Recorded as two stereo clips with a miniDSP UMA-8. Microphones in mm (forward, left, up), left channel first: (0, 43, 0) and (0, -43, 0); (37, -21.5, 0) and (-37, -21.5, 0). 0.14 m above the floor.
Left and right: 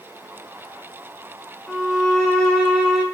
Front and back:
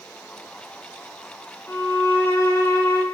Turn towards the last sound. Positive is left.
turn(degrees=20)